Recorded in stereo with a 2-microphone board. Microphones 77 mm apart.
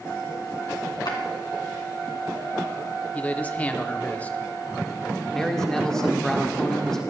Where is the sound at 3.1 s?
20° left (ahead or behind), 0.7 m.